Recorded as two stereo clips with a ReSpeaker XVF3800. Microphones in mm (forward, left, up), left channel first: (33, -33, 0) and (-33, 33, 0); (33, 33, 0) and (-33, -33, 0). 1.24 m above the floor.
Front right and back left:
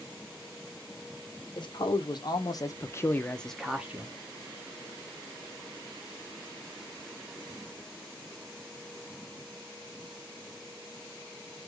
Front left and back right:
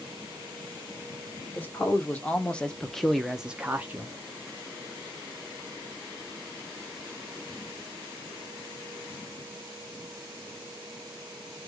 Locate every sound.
1.6 s a man speaking: 20° right, 1.2 m; by 4.2 s straight behind, 0.6 m